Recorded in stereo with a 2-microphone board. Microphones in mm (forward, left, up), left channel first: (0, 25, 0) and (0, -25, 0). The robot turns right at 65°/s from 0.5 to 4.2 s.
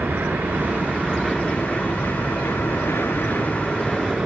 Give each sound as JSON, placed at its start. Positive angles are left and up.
{"t": 0.0, "sound": "an aircraft", "azimuth_deg": -50}